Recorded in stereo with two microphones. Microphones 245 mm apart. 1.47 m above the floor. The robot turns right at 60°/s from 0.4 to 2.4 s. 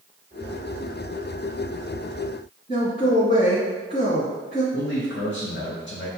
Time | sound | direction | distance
2.7 | a man speaking | 35° left (ahead or behind) | 1.2 m
4.7 | a man speaking | 50° left (ahead or behind) | 0.7 m